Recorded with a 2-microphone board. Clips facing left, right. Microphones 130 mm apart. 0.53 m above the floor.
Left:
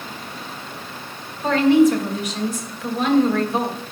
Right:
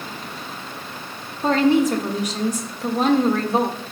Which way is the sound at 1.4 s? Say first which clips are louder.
Left 2 dB; 40° right (ahead or behind).